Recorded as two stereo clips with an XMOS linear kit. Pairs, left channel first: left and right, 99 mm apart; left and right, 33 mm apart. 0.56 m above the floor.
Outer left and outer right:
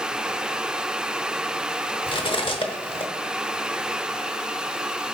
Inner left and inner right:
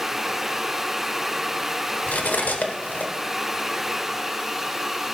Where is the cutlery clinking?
60° left (ahead or behind), 1.0 m.